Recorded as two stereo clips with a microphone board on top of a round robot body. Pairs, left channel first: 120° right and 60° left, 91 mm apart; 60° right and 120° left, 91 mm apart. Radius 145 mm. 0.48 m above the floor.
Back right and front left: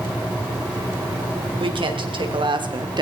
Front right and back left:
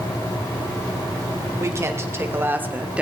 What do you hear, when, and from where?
1.6 s a woman speaking: 65° left, 3 m; by 3.0 s 45° left, 1.8 m